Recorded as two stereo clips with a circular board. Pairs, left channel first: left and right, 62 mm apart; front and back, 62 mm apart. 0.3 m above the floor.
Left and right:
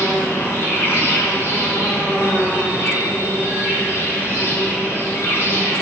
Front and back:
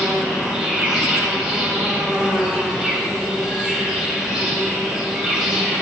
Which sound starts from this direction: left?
An insect, at 0.0 s.